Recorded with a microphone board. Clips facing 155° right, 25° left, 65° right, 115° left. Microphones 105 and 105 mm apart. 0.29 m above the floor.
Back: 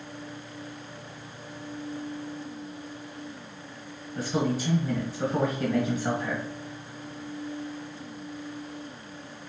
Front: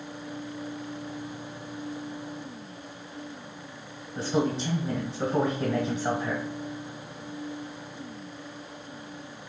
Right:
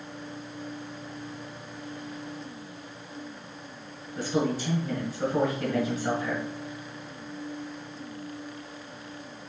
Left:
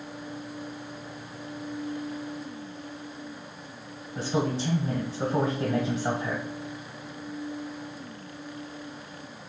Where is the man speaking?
70° left, 1.2 m.